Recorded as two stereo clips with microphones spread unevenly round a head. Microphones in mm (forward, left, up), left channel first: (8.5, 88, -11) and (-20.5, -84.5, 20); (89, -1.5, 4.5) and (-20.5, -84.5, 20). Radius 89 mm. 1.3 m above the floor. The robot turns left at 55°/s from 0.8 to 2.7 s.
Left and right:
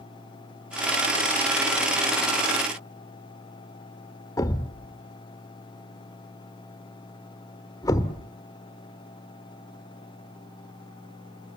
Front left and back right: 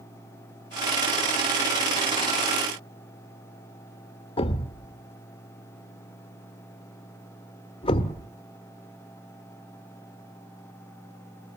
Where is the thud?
5° left, 1.1 m.